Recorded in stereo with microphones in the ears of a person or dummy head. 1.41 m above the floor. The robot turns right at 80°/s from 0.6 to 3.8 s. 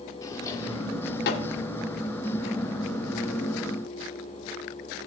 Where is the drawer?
20° left (ahead or behind), 1.7 m; by 1.6 s 65° left (ahead or behind), 1.7 m.